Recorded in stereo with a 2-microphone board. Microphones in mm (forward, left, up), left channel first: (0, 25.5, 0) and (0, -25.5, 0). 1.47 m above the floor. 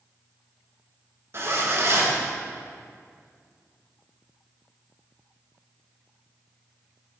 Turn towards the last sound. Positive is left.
turn(degrees=-50)  # may be behind; listen again after turning